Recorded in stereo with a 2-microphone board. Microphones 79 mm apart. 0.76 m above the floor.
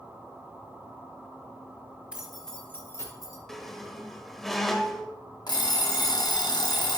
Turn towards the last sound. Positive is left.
turn(degrees=65)  # may be behind; listen again after turning